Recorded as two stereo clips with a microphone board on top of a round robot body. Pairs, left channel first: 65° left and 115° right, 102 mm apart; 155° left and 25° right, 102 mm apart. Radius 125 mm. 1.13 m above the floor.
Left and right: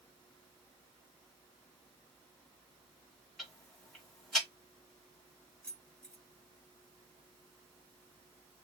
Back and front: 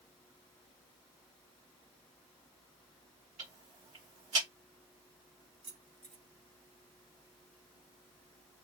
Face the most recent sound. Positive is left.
turn(degrees=-10)